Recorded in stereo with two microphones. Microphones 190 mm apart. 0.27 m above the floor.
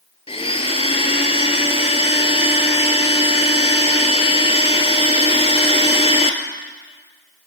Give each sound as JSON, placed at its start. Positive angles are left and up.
{"t": 0.3, "sound": "a blender", "side_deg": 30, "distance_m": 0.7}